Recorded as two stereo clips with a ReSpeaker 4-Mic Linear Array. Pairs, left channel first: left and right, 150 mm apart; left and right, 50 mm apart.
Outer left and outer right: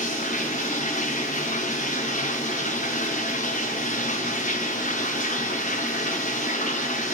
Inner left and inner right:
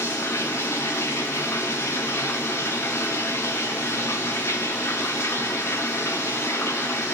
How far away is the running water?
About 1.2 m.